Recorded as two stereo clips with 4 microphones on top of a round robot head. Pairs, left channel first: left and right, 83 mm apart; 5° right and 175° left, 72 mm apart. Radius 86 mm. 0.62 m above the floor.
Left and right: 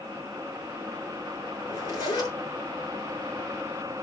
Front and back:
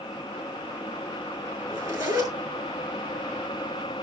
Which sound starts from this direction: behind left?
A zipper, at 1.6 s.